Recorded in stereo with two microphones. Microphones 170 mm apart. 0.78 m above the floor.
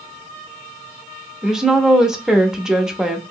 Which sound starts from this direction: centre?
A woman speaking, at 1.4 s.